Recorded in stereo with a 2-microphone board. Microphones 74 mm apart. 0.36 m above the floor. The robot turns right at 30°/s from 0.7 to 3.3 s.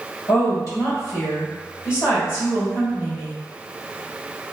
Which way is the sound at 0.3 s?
75° left.